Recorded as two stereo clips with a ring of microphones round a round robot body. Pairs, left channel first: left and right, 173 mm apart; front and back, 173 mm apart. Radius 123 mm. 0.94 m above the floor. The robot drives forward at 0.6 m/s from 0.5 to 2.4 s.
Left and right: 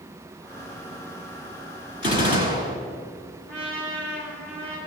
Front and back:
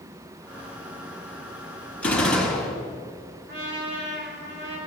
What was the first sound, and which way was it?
A gunshot, 85° left.